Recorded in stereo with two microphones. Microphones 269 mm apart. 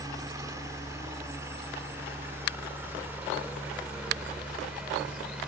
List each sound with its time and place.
0.0 s a helicopter: 15° right (ahead or behind); by 5.5 s 5° right (ahead or behind)